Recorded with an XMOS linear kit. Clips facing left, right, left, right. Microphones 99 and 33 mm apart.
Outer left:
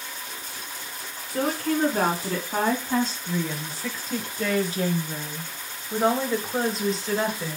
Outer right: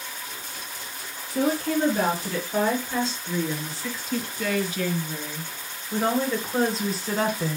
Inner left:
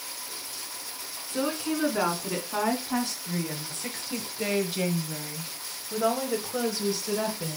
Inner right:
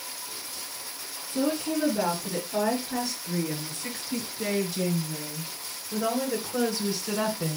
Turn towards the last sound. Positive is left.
turn(degrees=-15)  # may be behind; listen again after turning